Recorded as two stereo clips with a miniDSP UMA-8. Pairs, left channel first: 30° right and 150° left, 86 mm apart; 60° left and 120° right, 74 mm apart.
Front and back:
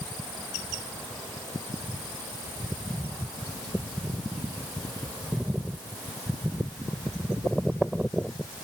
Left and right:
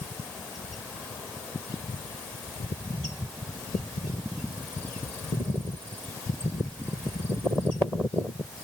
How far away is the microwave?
I don't hear a microwave.